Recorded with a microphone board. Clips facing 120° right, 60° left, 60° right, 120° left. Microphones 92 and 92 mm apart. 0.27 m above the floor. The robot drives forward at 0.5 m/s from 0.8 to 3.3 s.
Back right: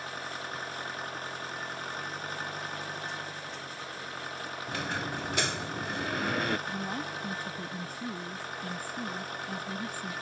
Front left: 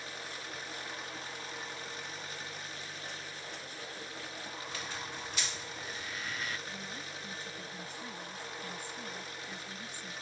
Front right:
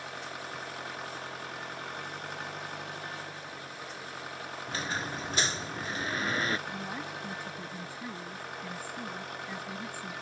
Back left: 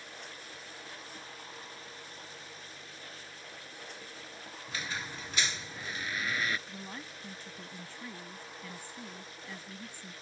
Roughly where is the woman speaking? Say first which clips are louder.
Back right 9 dB, front right 7 dB; behind right.